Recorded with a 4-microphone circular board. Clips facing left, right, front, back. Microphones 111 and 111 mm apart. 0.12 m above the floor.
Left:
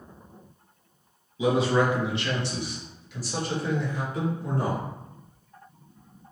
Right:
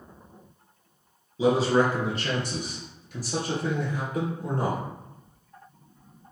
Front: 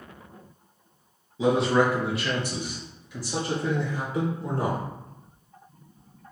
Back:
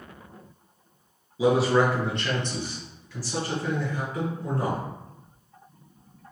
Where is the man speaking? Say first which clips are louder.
Right 1 dB, back 1 dB; 105° right, 1.3 m; by 4.8 s 55° right, 2.5 m.